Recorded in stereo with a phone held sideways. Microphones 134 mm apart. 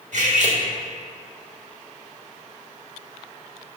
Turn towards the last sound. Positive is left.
turn(degrees=-65)  # may be behind; listen again after turning